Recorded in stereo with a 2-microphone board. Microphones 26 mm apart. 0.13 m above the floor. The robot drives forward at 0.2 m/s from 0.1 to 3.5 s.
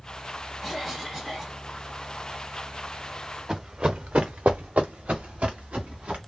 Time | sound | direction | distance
0.6 | a cough | 15° right (ahead or behind) | 1.9 m
3.5 | running footsteps | 30° right (ahead or behind) | 0.6 m